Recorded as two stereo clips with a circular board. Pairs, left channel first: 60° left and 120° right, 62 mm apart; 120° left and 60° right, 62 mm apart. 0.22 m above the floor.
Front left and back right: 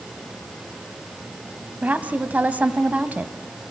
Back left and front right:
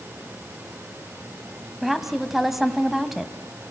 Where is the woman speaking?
145° right, 1.2 m.